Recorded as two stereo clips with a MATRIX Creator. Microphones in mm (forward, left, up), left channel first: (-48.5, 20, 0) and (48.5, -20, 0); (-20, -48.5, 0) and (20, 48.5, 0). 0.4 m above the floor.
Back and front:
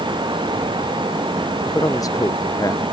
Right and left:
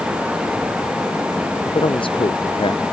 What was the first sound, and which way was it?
A man speaking, 150° right.